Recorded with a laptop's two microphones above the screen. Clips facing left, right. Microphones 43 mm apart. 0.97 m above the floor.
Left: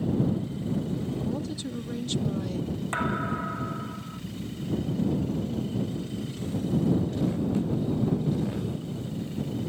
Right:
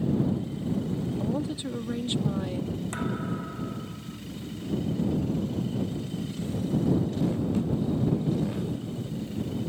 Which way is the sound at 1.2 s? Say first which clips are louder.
Right 2 dB; 25° right (ahead or behind).